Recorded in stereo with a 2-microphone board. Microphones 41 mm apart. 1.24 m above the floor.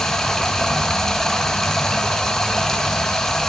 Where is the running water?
10° left (ahead or behind), 1.0 m.